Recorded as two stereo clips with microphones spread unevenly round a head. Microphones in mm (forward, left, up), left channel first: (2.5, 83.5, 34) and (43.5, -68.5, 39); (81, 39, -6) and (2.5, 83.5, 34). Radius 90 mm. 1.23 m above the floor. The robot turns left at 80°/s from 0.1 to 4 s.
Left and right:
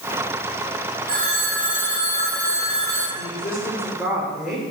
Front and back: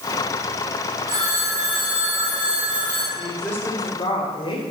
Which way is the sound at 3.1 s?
80° left.